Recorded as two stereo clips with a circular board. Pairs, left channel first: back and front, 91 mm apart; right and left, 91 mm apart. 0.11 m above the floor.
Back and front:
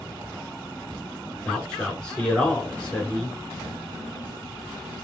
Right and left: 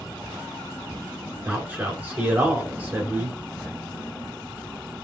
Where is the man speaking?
115° left, 1.3 m.